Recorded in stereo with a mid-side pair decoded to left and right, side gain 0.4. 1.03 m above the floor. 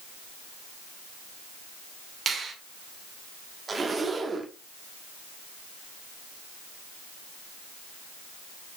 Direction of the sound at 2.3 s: 50° right.